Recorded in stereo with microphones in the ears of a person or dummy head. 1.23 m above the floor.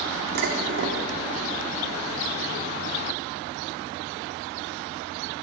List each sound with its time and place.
0.3 s dishes clattering: 60° right (ahead or behind), 1.7 m